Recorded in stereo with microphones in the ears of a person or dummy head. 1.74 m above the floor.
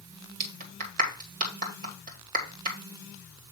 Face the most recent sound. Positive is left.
turn(degrees=-45)  # may be behind; listen again after turning